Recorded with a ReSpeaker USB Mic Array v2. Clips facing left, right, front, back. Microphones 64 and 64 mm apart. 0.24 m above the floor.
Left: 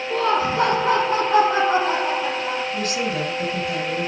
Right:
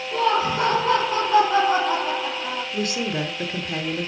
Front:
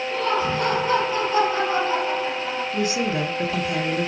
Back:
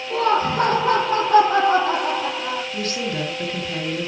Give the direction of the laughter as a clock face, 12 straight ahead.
7 o'clock.